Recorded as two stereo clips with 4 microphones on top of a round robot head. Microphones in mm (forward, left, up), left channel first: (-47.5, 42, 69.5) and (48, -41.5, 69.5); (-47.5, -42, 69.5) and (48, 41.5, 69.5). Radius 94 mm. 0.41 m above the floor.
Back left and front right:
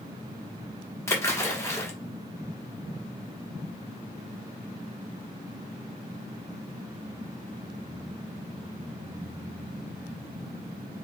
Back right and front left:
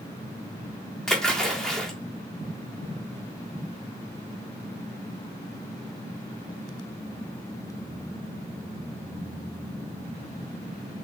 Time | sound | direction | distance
1.1 | a splash | 145° left | 1.5 m